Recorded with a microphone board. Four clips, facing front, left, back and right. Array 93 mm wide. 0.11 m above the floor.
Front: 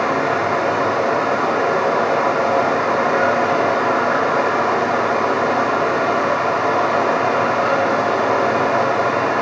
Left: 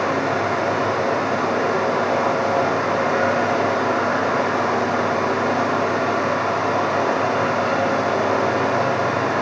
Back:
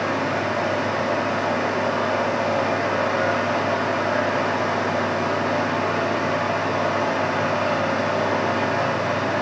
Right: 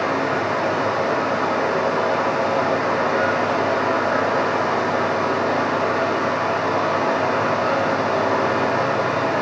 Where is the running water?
10° left, 2.5 m.